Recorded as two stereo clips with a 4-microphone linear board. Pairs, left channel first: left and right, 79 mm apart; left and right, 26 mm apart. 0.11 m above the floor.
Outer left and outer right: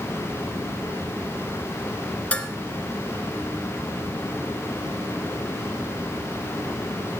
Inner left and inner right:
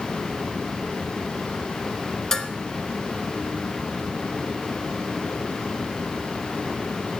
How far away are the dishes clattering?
About 0.8 m.